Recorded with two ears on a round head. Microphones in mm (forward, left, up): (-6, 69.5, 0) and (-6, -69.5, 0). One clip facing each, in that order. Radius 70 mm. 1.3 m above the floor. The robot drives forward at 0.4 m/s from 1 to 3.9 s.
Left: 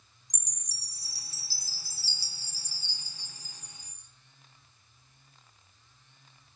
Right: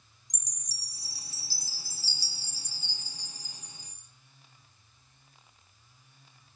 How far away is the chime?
About 0.5 m.